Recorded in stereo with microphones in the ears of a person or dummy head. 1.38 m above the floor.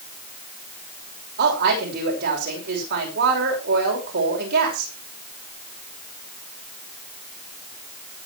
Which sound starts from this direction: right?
A woman speaking, at 1.4 s.